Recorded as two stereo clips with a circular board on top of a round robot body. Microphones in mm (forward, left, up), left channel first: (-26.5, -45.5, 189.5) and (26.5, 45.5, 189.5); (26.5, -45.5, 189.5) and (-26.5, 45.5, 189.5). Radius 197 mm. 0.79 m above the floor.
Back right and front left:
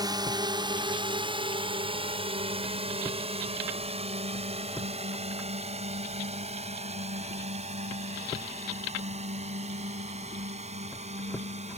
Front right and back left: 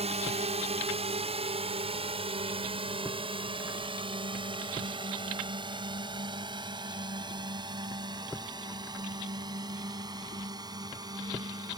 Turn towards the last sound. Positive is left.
turn(degrees=65)